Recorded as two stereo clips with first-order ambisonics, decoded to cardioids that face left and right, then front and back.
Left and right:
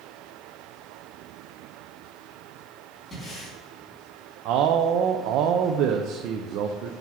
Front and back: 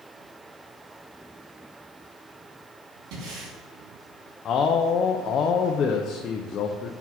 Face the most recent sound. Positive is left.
turn(degrees=-55)